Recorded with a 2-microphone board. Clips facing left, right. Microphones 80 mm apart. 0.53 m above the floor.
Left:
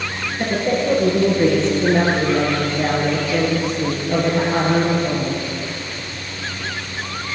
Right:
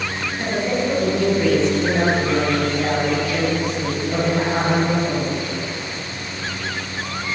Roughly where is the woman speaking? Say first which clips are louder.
Left 2 dB; left.